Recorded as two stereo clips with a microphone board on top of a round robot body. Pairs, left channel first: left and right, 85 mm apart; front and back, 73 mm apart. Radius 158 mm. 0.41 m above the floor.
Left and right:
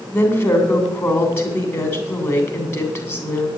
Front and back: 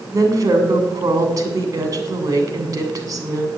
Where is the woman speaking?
145° left, 3 m.